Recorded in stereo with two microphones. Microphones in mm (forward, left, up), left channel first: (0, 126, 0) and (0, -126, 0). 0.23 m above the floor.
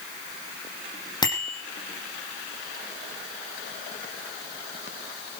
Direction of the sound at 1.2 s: 15° left (ahead or behind).